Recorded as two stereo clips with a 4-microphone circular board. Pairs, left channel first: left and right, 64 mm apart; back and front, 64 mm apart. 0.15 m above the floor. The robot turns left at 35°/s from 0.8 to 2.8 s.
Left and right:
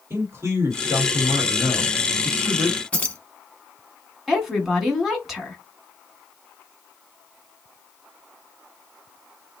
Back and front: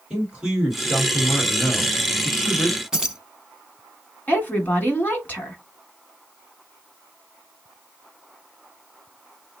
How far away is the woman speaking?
About 1.4 m.